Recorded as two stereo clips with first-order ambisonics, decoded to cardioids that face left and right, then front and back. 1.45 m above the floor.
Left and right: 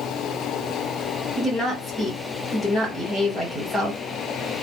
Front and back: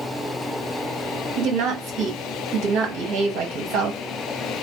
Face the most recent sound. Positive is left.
turn(degrees=175)